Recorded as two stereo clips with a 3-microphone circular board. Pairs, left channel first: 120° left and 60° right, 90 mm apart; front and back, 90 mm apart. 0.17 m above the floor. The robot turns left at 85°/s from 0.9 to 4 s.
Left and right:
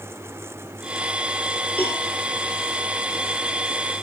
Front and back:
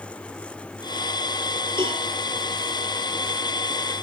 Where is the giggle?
I don't hear a giggle.